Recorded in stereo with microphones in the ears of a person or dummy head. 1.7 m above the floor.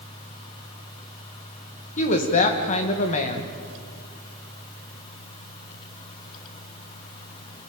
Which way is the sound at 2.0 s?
40° left (ahead or behind).